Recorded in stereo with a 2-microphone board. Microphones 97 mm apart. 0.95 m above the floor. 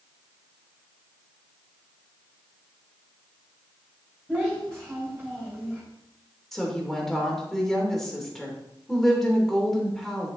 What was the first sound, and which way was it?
A child speaking, 10° right (ahead or behind).